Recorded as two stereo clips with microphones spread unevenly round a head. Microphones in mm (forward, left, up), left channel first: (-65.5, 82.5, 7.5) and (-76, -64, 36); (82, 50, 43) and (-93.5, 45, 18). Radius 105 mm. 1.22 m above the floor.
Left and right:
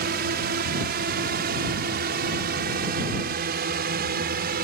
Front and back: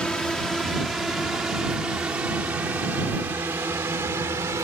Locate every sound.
0.0 s a drone: 85° right; by 4.7 s 100° right